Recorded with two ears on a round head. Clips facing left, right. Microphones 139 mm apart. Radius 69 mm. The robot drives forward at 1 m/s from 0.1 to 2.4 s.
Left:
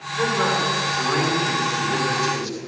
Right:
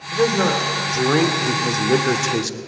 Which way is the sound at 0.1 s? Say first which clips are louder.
Right 4 dB; 40° right (ahead or behind).